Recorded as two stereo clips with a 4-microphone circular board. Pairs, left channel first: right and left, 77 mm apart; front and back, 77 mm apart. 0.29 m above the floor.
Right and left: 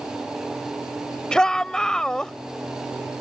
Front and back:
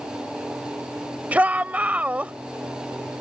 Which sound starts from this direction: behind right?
A shout, at 1.3 s.